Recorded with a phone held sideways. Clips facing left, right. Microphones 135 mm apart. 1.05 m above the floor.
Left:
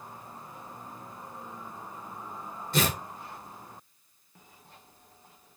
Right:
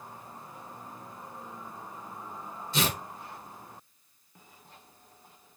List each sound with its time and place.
2.7 s tearing paper: 60° left (ahead or behind), 4.5 m